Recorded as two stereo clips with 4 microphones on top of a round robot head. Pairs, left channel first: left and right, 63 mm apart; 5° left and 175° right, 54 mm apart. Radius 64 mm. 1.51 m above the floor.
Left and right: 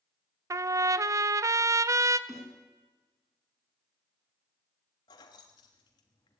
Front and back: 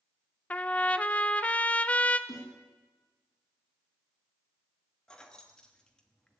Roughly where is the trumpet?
Ahead right.